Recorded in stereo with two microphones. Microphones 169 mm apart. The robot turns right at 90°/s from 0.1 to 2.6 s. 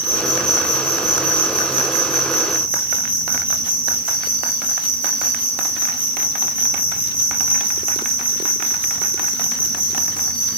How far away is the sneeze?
No sneeze in this recording.